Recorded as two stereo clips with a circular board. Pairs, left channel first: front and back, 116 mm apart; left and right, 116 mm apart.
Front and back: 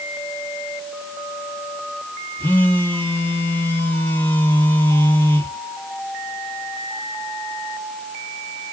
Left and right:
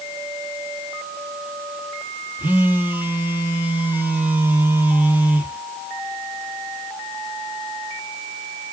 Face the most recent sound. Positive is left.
turn(degrees=-40)